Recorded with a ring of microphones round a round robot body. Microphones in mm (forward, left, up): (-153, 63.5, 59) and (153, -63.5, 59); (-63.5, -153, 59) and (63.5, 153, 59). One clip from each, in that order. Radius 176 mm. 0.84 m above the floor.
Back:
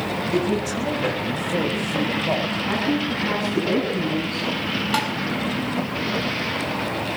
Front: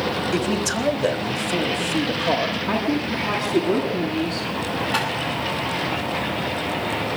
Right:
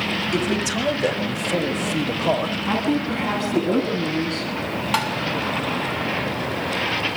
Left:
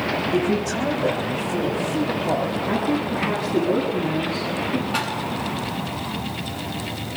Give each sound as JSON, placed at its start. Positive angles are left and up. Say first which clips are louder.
{"t": 0.3, "sound": "a man speaking", "louder": "even, even", "azimuth_deg": -70, "distance_m": 5.5}
{"t": 2.7, "sound": "a woman speaking", "louder": "even, even", "azimuth_deg": -95, "distance_m": 9.0}
{"t": 4.9, "sound": "tapping", "louder": "even, right 5 dB", "azimuth_deg": -140, "distance_m": 7.0}